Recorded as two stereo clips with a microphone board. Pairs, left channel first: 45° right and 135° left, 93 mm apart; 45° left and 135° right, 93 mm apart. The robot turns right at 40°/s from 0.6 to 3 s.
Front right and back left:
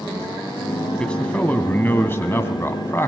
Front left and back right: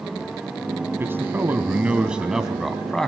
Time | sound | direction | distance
1.0 | a man speaking | 115° right | 1.1 m